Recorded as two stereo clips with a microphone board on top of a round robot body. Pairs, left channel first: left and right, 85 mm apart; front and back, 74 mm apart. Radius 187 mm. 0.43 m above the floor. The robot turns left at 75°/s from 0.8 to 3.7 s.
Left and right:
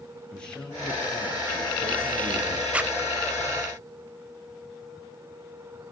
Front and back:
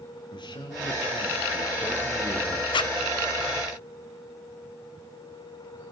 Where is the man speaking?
10° left, 9.5 m; by 2.6 s 125° right, 9.5 m.